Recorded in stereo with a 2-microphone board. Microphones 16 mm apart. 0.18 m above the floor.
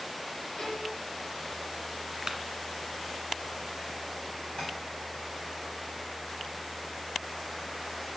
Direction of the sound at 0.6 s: 70° left (ahead or behind).